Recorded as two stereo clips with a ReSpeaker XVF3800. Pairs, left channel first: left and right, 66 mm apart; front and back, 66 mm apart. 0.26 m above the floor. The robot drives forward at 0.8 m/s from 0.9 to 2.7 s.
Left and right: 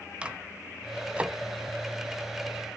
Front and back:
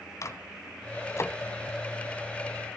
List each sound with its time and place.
0.2 s a microwave: 20° right, 1.7 m; by 1.4 s 25° right, 1.5 m